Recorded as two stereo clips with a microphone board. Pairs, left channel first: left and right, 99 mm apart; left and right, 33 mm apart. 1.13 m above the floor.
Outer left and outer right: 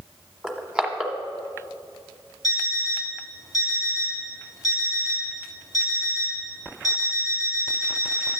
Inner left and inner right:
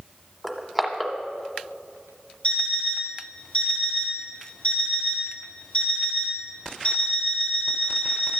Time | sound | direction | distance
0.4 | crushing | 5° right (ahead or behind) | 1.2 m
2.4 | an alarm clock | 35° left (ahead or behind) | 3 m